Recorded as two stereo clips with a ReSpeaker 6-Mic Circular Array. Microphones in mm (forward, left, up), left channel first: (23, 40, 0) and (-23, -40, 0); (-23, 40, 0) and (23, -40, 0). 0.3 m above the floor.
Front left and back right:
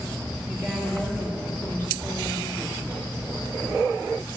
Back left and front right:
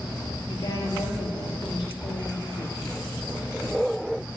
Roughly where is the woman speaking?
Behind.